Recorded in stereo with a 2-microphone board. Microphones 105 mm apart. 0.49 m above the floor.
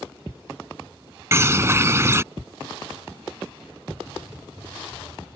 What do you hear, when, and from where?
1.3 s a bird: 25° right (ahead or behind)